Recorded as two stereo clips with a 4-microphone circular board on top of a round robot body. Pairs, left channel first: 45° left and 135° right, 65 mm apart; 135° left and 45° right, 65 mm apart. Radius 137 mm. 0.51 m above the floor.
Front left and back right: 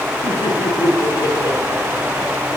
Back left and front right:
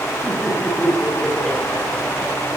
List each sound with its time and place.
0.2 s laughter: 50° left, 10 m